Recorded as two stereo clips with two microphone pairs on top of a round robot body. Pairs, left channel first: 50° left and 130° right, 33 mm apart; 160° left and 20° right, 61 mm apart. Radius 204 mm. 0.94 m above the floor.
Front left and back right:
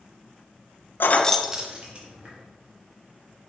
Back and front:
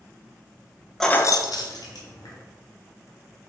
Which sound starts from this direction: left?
Keys jangling, at 1.0 s.